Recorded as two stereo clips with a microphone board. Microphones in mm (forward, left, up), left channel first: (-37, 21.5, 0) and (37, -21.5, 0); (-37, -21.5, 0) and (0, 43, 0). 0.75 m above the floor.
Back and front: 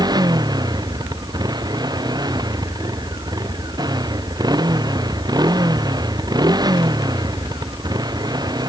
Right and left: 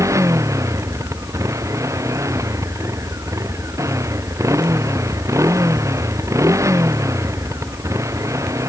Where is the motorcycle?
10° left.